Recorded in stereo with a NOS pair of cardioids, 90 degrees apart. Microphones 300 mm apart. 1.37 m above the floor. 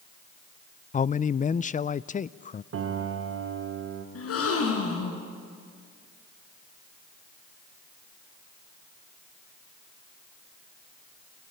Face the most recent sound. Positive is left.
turn(degrees=50)